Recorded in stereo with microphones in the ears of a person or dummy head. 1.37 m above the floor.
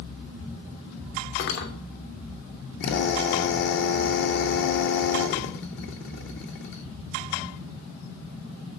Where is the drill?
65° left (ahead or behind), 1.8 m.